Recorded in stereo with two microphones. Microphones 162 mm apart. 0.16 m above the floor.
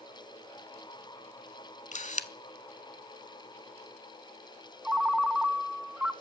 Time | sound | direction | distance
1.9 | a camera shutter | 50° left (ahead or behind) | 0.7 m
4.8 | a ringtone | 5° right (ahead or behind) | 0.8 m